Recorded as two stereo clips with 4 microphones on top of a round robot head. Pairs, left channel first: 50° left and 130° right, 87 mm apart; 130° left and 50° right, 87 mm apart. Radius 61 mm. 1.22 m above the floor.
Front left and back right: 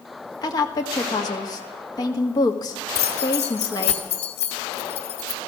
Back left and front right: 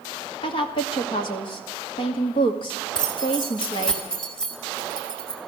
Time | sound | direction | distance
0.4 | a woman speaking | 95° left | 1.8 m
3.0 | keys jangling | 45° left | 2 m